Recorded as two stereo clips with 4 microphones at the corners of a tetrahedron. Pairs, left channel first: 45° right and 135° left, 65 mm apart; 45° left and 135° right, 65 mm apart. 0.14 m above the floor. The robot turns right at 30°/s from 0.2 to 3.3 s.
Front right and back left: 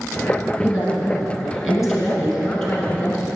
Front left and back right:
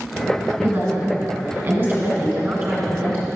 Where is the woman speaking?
175° right, 1.6 m; by 3.4 s 95° right, 1.6 m.